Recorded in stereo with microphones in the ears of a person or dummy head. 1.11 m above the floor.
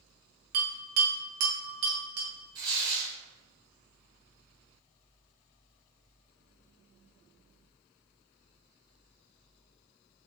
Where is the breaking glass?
I don't hear breaking glass.